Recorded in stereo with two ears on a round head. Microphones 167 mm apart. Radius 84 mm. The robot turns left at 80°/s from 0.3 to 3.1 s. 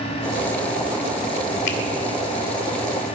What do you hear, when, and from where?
1.7 s a finger snap: 65° left (ahead or behind), 1.8 m; by 1.8 s 75° left (ahead or behind), 1.8 m